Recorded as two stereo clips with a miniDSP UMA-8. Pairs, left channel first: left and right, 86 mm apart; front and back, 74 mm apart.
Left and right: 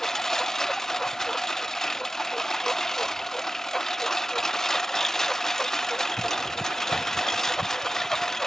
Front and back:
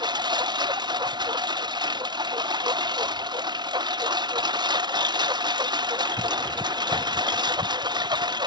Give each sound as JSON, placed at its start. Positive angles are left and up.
{"t": 0.0, "sound": "a lawn mower", "azimuth_deg": 175}